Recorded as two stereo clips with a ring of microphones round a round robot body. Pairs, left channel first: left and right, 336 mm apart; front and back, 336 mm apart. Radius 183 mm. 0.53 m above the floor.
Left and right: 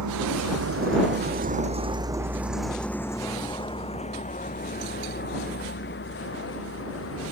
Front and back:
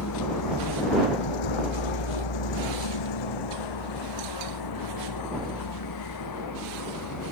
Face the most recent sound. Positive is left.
turn(degrees=35)